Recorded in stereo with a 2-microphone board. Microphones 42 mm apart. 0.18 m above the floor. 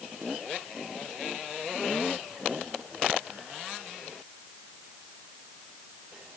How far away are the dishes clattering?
I don't hear dishes clattering.